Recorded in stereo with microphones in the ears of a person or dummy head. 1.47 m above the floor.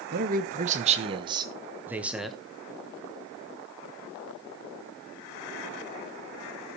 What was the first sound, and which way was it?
A man speaking, 55° right (ahead or behind).